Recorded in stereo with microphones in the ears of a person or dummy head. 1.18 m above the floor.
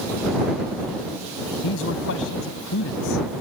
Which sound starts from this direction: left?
A man speaking, at 1.6 s.